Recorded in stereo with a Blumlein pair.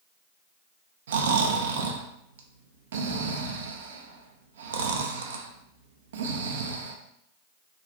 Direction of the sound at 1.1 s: 60° right.